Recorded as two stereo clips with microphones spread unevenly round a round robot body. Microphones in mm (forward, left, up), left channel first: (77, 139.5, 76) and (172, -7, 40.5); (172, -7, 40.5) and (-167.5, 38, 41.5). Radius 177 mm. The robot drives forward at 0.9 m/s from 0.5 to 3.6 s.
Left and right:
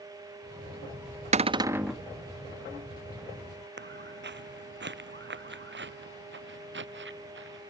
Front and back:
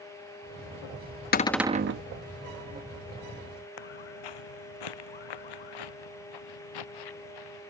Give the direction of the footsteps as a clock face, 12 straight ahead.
1 o'clock.